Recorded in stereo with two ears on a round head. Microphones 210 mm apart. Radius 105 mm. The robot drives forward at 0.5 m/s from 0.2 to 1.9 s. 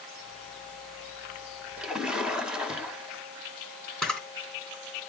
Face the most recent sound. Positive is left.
turn(degrees=5)  # may be behind; listen again after turning